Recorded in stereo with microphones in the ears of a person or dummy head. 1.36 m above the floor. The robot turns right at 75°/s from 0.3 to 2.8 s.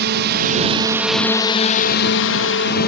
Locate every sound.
0.0 s a drone: 45° right (ahead or behind); by 2.9 s 40° left (ahead or behind)